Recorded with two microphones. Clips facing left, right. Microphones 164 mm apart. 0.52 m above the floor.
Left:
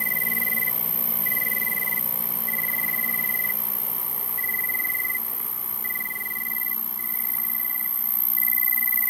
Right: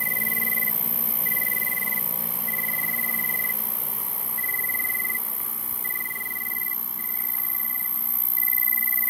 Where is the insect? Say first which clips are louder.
Even; 25° right (ahead or behind).